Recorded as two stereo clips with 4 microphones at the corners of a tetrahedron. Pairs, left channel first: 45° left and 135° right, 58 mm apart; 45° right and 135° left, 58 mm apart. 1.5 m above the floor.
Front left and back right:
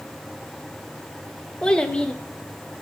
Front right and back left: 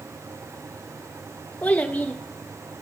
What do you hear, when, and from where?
1.6 s a child speaking: 10° right, 0.7 m